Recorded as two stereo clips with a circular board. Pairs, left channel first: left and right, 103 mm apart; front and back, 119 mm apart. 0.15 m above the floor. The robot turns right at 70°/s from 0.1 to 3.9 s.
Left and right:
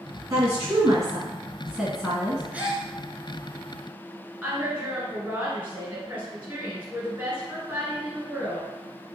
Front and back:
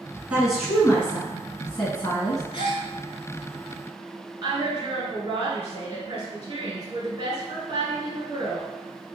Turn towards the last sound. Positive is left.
turn(degrees=-145)